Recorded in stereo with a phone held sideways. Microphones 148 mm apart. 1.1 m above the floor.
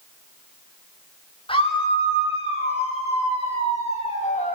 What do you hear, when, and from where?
1.5 s a scream: 35° left (ahead or behind), 7 m; by 4.5 s 55° left (ahead or behind), 7 m